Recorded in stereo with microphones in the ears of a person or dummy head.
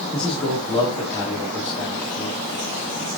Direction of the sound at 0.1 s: 35° left (ahead or behind).